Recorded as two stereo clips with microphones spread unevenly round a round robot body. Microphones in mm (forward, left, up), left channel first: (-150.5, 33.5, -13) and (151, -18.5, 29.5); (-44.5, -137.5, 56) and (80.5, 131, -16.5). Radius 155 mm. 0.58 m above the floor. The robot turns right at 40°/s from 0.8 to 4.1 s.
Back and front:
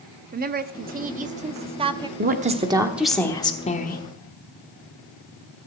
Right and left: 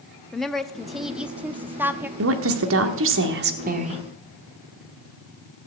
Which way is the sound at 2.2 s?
50° left.